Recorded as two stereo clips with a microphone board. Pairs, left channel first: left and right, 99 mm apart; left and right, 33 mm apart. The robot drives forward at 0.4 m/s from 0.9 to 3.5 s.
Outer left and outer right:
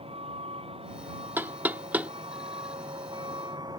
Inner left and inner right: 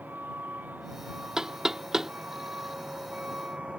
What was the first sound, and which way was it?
A vehicle, 80° right.